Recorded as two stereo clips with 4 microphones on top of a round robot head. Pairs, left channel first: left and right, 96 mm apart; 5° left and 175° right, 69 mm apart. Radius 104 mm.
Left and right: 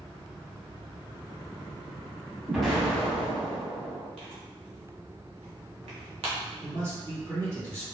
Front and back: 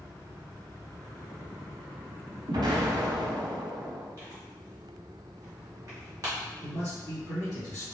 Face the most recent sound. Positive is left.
turn(degrees=-45)